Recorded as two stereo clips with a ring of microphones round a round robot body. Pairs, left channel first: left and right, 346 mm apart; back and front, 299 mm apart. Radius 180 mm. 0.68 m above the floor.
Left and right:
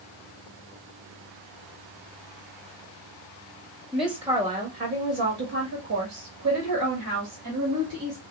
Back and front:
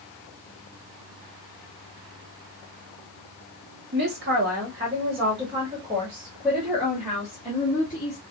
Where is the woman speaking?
Straight ahead, 1.3 m; by 8.2 s 105° right, 2 m.